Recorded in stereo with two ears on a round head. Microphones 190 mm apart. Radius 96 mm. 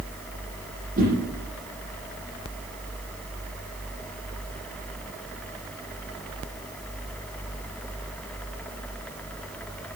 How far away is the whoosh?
About 10 m.